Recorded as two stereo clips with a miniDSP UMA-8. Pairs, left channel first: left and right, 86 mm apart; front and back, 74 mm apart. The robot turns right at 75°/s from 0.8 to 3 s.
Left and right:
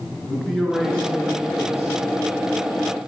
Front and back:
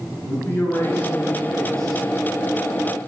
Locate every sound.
0.2 s a man speaking: straight ahead, 1.7 m; by 2.0 s 95° left, 1.7 m